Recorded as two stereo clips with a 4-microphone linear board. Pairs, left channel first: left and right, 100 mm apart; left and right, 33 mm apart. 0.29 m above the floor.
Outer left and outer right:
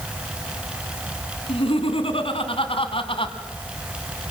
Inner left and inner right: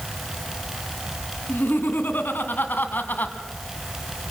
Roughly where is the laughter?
Left.